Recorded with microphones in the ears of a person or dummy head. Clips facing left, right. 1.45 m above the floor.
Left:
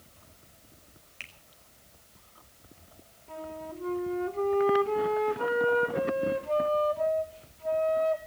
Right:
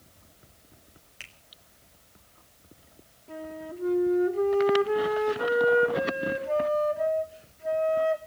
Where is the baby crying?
I don't hear a baby crying.